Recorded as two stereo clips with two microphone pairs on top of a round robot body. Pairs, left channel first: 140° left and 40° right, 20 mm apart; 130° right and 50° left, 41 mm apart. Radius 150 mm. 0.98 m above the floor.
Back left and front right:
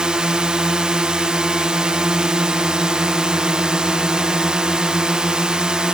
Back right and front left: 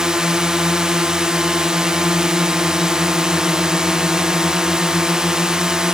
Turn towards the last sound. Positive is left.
turn(degrees=-15)